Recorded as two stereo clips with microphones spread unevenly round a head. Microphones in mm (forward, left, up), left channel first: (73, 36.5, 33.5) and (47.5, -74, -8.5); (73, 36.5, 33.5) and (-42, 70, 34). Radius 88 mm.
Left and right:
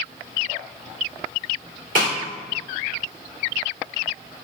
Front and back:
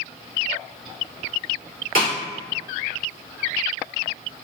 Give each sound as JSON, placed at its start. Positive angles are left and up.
{"t": 1.9, "sound": "a snare drum", "azimuth_deg": -170, "distance_m": 2.5}